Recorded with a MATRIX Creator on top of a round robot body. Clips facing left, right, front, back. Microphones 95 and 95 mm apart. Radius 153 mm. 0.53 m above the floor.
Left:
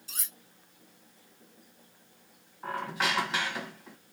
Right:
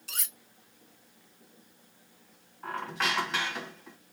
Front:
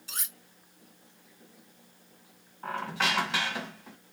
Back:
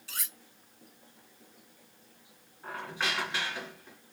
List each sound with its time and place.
0.1 s cutlery clinking: 70° right, 0.6 m
2.6 s a squeak: 10° left, 1.1 m